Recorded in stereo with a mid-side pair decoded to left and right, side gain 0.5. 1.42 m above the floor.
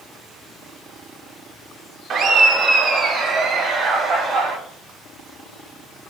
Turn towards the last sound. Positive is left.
turn(degrees=-60)